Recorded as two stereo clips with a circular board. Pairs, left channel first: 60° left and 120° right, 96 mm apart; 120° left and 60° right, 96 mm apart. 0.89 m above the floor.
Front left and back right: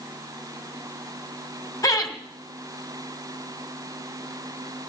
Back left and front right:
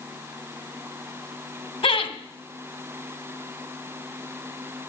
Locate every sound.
1.8 s laughter: 115° left, 2.5 m